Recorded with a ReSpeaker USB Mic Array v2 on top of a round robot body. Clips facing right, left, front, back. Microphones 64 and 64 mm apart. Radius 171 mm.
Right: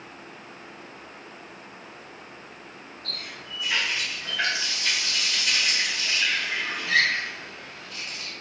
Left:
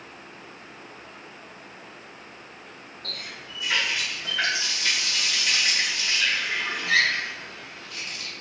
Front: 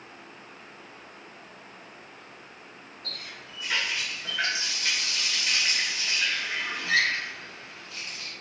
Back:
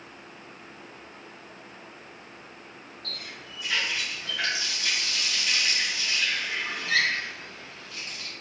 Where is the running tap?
60° left, 0.9 m.